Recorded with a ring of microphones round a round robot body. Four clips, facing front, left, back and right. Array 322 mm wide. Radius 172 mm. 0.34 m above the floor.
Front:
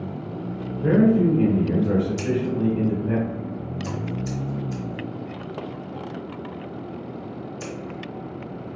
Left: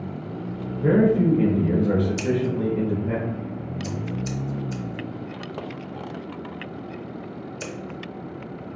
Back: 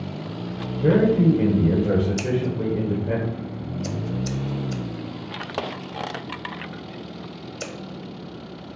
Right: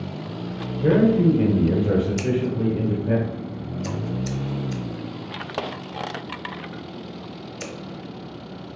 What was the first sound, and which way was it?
A man speaking, 125° right.